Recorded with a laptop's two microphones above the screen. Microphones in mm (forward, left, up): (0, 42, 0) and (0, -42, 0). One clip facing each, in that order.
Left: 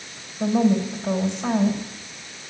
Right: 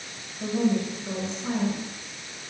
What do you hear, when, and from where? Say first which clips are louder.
0.4 s a woman speaking: left 5 dB; 80° left, 5 m